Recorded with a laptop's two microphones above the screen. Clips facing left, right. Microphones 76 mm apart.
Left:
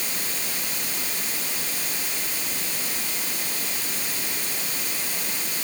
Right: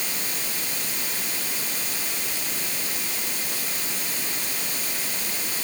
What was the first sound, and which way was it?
Only background noise.